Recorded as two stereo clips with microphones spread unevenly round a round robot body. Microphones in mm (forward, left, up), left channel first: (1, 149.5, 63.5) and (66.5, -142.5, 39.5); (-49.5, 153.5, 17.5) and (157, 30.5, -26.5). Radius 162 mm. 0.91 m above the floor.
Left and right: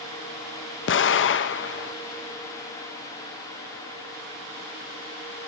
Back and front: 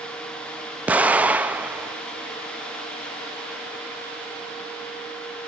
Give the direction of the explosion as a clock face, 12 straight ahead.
10 o'clock.